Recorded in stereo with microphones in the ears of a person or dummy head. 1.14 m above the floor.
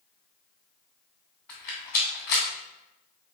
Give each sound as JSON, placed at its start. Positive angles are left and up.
{"t": 1.5, "sound": "a rattle", "side_deg": 5, "distance_m": 0.9}